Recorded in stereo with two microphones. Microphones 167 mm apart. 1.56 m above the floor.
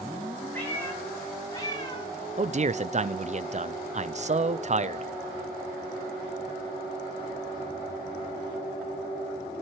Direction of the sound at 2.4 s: 45° right (ahead or behind).